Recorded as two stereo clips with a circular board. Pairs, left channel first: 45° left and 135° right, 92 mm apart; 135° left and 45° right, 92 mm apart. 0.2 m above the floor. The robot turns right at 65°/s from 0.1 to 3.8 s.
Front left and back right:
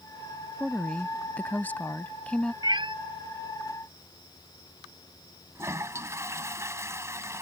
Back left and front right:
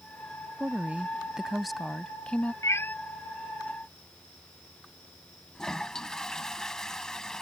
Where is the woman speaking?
25° right; by 2.5 s 100° left.